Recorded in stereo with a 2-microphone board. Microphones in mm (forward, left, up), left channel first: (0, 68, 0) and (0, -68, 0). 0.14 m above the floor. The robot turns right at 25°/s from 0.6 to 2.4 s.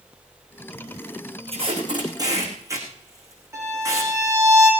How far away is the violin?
About 6 m.